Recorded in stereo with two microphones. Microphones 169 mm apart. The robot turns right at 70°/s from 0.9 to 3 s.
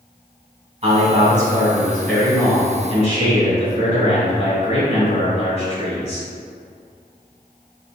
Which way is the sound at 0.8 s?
70° right.